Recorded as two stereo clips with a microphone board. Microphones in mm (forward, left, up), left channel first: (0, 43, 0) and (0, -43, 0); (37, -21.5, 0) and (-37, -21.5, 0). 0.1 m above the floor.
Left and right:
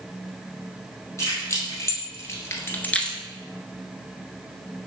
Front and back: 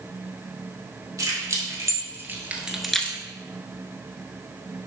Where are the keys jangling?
140° left, 2.5 m; by 3.2 s 15° left, 0.9 m.